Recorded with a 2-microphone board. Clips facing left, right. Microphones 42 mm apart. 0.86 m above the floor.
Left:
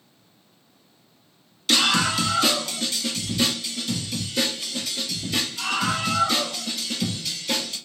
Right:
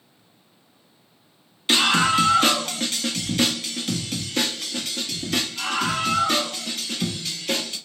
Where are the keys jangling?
I don't hear keys jangling.